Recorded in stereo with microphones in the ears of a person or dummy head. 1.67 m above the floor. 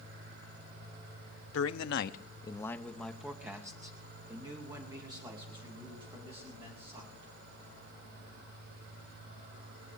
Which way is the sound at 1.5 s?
85° left.